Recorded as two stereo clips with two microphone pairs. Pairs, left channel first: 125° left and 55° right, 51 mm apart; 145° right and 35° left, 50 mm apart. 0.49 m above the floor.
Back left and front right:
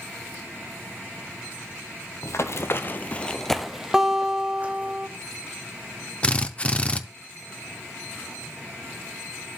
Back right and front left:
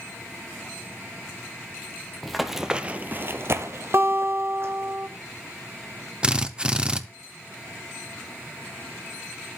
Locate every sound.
2.2 s running footsteps: 130° left, 0.9 m; by 4.9 s straight ahead, 1.5 m
3.9 s a guitar: 20° left, 1.4 m
6.2 s a drill: 85° left, 0.6 m